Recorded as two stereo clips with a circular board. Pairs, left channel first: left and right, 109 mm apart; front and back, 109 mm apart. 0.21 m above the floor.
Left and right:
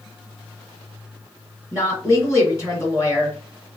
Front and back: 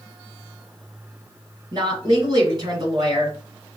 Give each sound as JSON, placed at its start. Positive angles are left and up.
{"t": 1.7, "sound": "a woman speaking", "azimuth_deg": 145, "distance_m": 1.9}